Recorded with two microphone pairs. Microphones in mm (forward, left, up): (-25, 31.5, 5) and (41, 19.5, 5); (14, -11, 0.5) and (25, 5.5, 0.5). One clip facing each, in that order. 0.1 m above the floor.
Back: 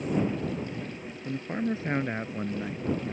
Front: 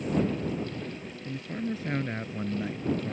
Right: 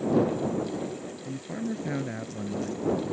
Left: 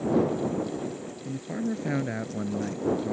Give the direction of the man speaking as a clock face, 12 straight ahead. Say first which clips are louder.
Back 4 dB, left 3 dB; 7 o'clock.